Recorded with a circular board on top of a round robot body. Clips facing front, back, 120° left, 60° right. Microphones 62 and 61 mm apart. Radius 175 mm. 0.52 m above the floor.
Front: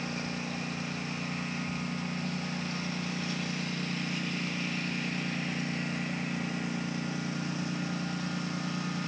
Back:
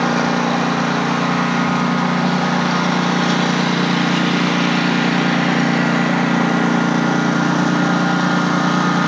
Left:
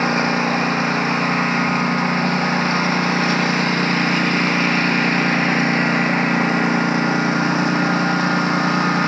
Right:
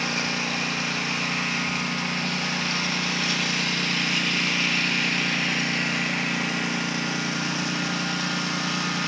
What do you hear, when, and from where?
0.0 s a lawn mower: 175° left